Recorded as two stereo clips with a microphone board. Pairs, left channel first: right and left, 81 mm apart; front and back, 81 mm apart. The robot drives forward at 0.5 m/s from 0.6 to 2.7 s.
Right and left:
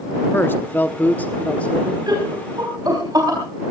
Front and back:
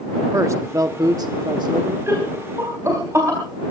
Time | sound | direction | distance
0.3 | a man speaking | 145° right | 0.8 m
2.1 | laughter | 125° left | 3.5 m